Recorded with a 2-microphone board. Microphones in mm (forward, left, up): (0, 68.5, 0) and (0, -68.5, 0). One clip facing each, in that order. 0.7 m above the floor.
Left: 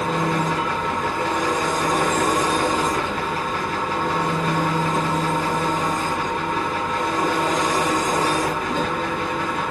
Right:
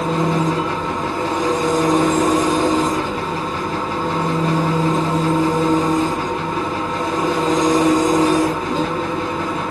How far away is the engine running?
About 1.4 m.